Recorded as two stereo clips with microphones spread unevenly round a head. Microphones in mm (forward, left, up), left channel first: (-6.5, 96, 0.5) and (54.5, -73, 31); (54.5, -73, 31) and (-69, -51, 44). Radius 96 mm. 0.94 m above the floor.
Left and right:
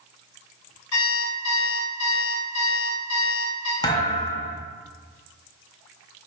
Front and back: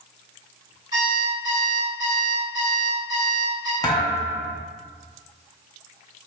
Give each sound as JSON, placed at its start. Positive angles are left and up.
{"t": 0.9, "sound": "an alarm clock", "azimuth_deg": 105, "distance_m": 2.0}
{"t": 3.8, "sound": "a thud", "azimuth_deg": 45, "distance_m": 0.6}